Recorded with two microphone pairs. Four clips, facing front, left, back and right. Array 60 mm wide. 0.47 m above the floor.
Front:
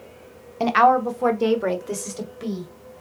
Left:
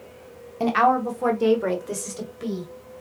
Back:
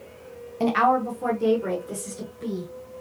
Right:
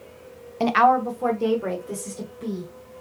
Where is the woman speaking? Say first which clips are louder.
Right 2 dB, front 4 dB; 25° right, 0.8 m; by 2.7 s 40° left, 2 m.